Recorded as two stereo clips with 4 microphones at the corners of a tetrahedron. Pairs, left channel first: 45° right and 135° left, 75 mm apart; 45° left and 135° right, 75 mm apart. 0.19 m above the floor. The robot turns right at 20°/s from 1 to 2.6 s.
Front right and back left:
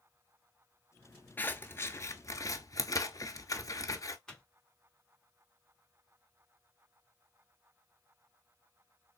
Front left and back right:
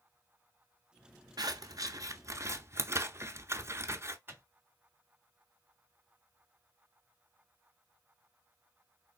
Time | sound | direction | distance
1.4 | scissors | 110° right | 0.5 m
4.3 | a microwave | 115° right | 0.9 m